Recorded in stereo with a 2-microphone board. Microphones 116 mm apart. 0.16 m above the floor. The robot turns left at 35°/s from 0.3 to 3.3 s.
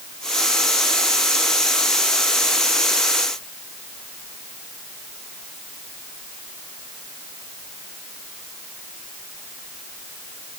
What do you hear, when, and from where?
Only background noise.